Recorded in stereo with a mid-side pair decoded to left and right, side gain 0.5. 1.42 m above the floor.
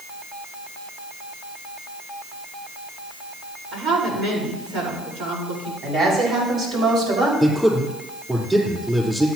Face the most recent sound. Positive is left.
turn(degrees=-5)